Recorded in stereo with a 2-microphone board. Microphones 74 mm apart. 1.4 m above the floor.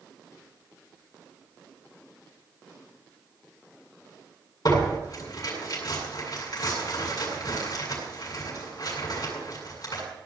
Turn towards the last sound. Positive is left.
turn(degrees=55)  # may be behind; listen again after turning